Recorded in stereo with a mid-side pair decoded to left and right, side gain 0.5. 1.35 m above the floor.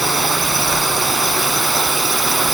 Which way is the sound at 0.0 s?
20° right.